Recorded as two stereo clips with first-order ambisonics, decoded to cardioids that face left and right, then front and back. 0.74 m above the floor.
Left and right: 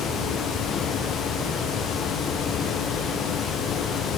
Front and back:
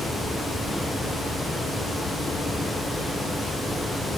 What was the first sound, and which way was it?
Only background noise.